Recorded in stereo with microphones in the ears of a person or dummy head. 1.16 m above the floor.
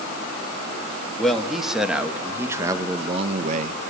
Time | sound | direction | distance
1.2 | a man speaking | 5° left (ahead or behind) | 2 m